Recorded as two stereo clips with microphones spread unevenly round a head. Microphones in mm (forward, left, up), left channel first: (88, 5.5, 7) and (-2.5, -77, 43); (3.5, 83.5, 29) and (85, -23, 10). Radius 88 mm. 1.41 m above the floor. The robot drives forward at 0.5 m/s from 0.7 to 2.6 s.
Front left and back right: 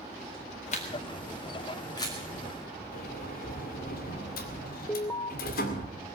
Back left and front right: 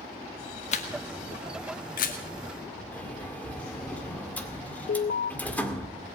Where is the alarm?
125° left, 0.5 m.